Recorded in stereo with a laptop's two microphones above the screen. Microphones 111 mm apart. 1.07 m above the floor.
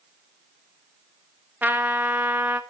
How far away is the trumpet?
About 0.8 m.